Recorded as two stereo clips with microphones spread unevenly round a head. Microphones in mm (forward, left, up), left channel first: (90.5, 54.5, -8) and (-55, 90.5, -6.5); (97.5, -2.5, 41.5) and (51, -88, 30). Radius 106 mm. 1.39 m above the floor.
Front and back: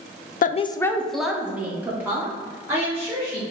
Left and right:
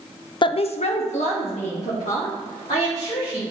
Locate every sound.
0.4 s a woman speaking: 20° left, 0.6 m; by 3.4 s 95° left, 4 m